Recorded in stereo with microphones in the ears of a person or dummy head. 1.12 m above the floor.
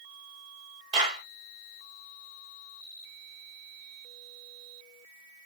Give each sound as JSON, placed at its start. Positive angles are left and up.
{"t": 0.9, "sound": "a clap", "side_deg": -35, "distance_m": 1.1}